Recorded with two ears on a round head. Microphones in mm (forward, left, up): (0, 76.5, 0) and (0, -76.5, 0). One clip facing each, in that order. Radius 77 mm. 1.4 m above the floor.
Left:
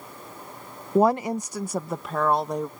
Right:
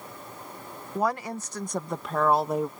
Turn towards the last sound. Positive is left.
turn(degrees=-5)  # may be behind; listen again after turning